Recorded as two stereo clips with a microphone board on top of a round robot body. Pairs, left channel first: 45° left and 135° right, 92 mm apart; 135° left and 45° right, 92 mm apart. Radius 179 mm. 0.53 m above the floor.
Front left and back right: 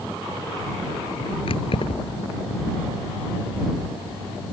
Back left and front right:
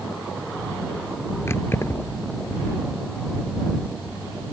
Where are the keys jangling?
70° left.